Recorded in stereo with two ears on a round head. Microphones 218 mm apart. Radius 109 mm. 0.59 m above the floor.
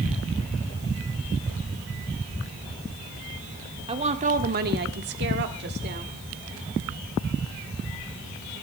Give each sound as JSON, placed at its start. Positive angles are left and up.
{"t": 3.9, "sound": "a woman speaking", "side_deg": -25, "distance_m": 1.9}